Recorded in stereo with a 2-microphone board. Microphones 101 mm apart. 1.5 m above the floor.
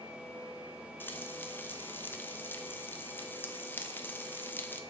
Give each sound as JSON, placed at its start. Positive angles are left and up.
{"t": 1.0, "sound": "frying", "side_deg": 20, "distance_m": 0.9}